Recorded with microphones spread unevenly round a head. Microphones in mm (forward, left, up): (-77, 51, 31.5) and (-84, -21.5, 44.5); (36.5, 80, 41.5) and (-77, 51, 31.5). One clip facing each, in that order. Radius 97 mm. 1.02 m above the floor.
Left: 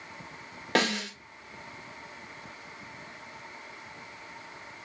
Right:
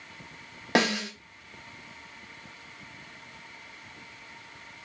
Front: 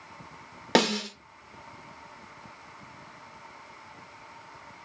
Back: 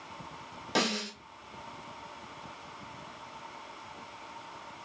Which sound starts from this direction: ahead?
A snare drum, at 0.8 s.